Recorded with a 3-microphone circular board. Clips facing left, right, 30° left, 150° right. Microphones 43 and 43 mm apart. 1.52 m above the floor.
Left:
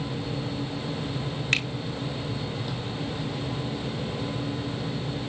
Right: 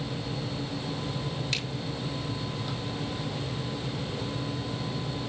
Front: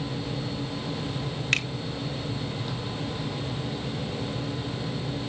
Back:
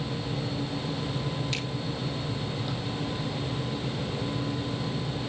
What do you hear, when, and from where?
1.5 s a finger snap: 55° left, 1.4 m